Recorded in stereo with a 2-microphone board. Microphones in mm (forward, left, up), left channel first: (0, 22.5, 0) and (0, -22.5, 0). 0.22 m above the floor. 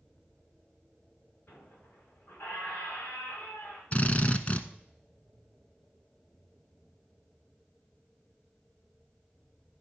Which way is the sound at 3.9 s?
30° left (ahead or behind).